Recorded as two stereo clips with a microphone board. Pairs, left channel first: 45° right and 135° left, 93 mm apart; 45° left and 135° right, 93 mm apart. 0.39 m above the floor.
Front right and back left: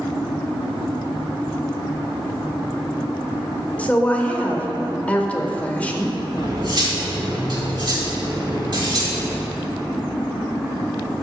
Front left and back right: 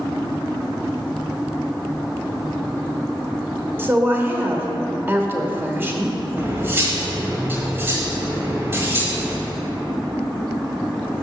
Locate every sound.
3.8 s a woman speaking: 100° right, 0.9 m
6.4 s cutlery clinking: 165° left, 1.3 m